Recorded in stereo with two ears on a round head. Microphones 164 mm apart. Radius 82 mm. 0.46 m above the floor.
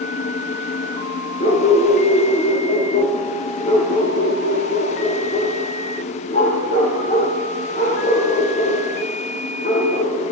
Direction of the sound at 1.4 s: 30° left (ahead or behind).